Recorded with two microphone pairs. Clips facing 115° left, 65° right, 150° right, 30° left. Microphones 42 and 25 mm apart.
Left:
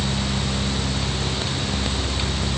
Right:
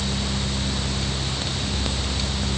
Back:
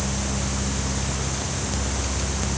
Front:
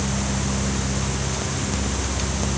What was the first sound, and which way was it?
Only background noise.